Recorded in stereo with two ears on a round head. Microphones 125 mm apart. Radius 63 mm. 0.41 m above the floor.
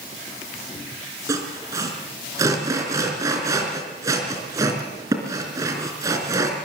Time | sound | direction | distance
1.3 | sawing | 25° right (ahead or behind) | 4 m